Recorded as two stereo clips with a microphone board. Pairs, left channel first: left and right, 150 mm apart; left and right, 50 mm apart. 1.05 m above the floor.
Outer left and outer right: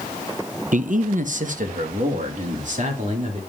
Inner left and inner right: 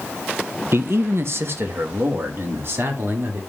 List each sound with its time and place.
0.7 s a man speaking: 60° right (ahead or behind), 0.5 m; by 3.4 s 55° right (ahead or behind), 2.5 m